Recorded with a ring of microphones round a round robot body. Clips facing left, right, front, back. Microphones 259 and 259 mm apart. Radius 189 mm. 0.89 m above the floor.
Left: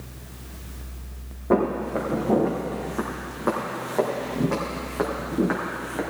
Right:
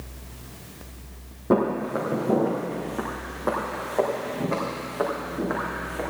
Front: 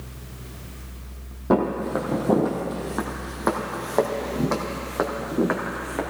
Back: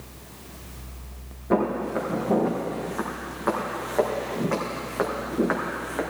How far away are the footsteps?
About 1.5 m.